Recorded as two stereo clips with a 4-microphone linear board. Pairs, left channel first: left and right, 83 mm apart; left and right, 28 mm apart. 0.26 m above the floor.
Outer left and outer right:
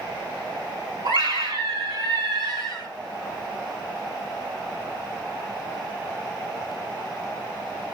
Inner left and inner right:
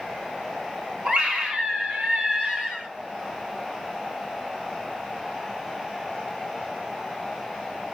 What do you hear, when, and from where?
1.1 s a scream: 60° right (ahead or behind), 2.5 m